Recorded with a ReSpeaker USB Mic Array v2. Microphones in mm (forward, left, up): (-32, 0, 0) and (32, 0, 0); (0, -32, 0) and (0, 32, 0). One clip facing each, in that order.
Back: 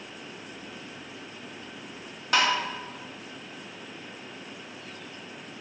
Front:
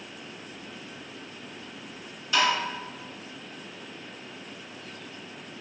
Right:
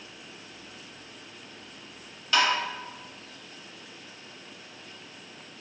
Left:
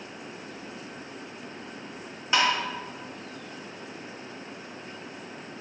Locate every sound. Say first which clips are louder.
2.3 s tapping: even, even; 160° left, 0.9 m